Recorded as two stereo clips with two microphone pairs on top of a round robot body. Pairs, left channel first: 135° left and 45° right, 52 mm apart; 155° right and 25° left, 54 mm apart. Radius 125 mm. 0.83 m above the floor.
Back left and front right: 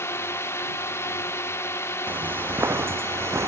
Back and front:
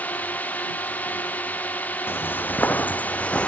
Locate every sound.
0.0 s a drone: 155° left
2.1 s footsteps: 105° right; by 3.5 s 85° right